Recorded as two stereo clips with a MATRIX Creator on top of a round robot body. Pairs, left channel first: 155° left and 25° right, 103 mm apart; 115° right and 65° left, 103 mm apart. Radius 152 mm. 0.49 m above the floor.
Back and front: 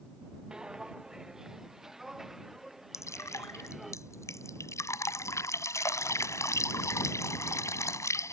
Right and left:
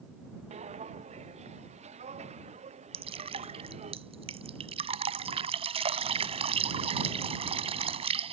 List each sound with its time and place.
0.5 s footsteps: 60° left; by 3.9 s 65° left
2.9 s dripping: 95° left